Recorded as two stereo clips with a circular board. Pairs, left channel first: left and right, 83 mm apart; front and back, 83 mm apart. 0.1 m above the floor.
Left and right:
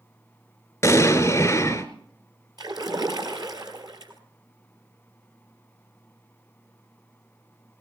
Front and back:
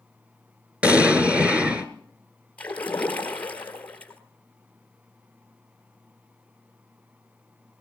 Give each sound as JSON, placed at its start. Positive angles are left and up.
{"t": 0.8, "sound": "an explosion", "azimuth_deg": 115, "distance_m": 1.4}
{"t": 2.6, "sound": "a splash", "azimuth_deg": -70, "distance_m": 1.6}